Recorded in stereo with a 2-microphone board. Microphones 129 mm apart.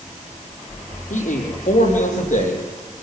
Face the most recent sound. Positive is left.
turn(degrees=75)  # may be behind; listen again after turning